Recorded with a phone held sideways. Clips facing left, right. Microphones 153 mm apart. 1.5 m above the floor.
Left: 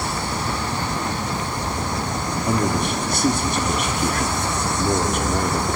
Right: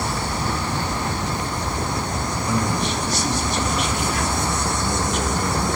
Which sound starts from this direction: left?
A man speaking, at 2.5 s.